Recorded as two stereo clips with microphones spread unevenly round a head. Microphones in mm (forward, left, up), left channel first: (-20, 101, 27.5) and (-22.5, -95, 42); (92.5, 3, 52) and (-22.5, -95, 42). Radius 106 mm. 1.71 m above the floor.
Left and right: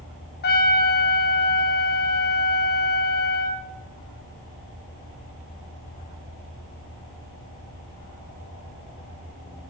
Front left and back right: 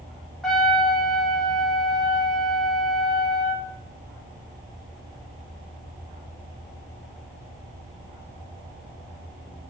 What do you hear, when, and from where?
0.4 s a trumpet: 130° left, 2 m